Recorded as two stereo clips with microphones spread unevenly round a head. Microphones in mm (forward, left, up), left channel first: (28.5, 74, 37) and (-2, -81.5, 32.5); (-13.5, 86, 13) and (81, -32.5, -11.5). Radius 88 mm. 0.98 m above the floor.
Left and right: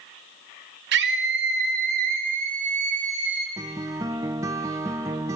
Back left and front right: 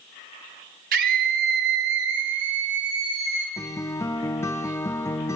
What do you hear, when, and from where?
0.9 s a scream: 95° right, 1.8 m; by 3.5 s 55° right, 2.5 m
3.6 s a guitar: 170° right, 0.5 m